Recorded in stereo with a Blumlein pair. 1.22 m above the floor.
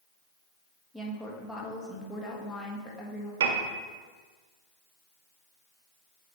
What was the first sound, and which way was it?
A woman speaking, 10° left.